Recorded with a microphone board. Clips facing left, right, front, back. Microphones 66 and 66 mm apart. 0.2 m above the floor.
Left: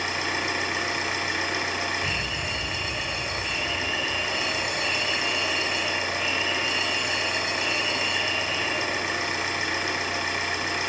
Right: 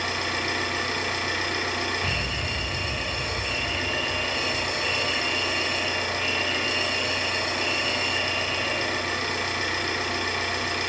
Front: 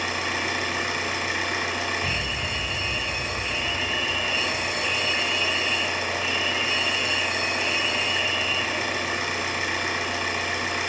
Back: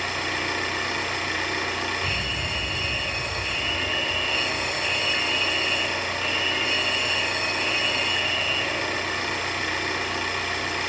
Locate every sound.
0.0 s an engine running: 65° left, 0.9 m
2.0 s a fire alarm: 50° right, 2.0 m